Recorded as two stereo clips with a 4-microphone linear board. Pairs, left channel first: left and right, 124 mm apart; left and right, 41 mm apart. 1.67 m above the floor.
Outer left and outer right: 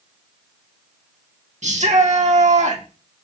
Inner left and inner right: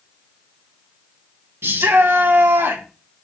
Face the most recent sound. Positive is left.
turn(degrees=-75)  # may be behind; listen again after turning